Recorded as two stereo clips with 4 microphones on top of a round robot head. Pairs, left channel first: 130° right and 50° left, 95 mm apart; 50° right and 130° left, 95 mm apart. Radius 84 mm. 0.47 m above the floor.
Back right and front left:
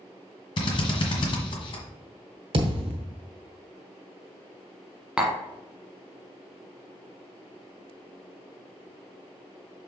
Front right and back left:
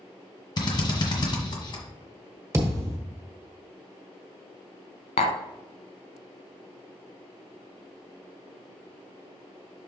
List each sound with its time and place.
0.6 s a drill: 90° right, 1.5 m
2.5 s a thud: 75° left, 1.2 m
5.2 s tapping: 35° right, 0.7 m